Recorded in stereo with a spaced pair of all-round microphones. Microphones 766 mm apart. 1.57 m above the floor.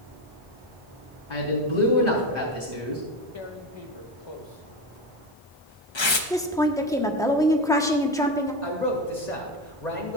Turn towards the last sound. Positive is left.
turn(degrees=60)  # may be behind; listen again after turning